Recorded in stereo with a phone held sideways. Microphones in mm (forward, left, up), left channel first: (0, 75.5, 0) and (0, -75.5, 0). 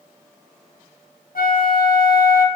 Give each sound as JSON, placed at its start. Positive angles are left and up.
{"t": 1.4, "sound": "a flute", "side_deg": 70, "distance_m": 1.8}